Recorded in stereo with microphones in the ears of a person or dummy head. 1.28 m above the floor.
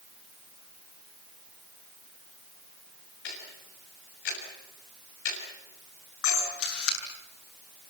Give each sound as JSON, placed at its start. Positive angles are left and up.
{"t": 3.2, "sound": "ticking", "side_deg": 60, "distance_m": 7.5}
{"t": 6.2, "sound": "a camera shutter", "side_deg": 80, "distance_m": 8.5}